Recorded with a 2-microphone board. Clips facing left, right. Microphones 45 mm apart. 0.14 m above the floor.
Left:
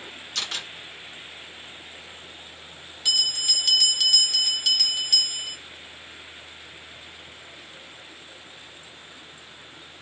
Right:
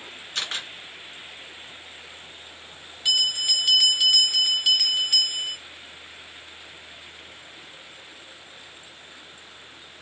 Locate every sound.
0.3 s a camera shutter: 25° right (ahead or behind), 2.0 m
3.0 s a bell: 15° right (ahead or behind), 1.4 m